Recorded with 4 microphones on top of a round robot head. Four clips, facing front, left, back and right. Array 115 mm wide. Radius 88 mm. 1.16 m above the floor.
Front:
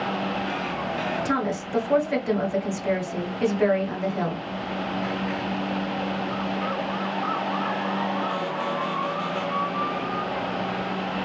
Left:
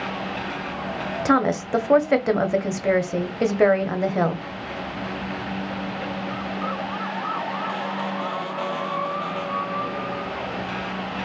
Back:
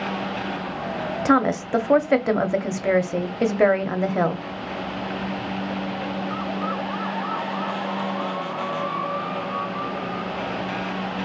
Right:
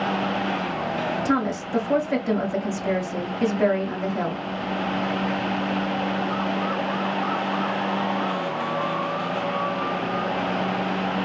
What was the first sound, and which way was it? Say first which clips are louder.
A woman speaking: left 8 dB, back 6 dB; 140° left.